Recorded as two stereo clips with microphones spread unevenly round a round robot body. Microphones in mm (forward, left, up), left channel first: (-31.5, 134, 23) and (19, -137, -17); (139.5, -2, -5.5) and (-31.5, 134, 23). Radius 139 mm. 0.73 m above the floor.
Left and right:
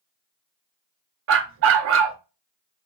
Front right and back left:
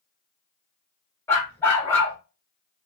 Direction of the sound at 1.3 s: 125° right.